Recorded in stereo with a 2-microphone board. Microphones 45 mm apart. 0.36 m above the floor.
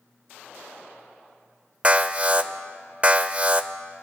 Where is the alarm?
30° right (ahead or behind), 0.5 m.